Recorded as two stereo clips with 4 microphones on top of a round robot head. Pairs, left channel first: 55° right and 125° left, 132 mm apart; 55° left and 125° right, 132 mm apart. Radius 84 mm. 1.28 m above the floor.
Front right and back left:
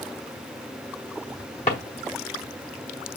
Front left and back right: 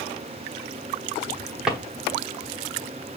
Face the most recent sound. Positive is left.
turn(degrees=-45)